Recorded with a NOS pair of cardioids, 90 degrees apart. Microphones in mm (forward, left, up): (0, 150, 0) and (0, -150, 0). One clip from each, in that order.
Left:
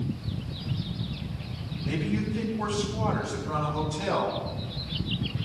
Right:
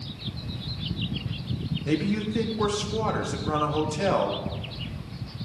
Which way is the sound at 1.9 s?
55° right.